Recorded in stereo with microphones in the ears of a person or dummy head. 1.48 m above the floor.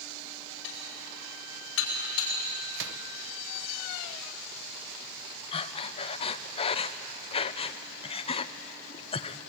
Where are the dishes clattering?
75° left (ahead or behind), 4.5 m.